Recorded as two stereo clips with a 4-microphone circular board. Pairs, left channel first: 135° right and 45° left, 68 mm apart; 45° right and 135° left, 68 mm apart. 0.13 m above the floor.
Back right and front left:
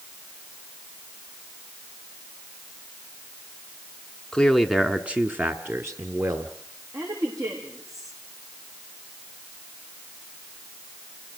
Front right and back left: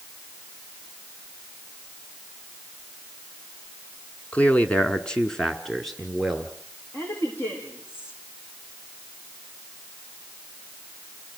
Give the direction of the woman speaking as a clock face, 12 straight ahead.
12 o'clock.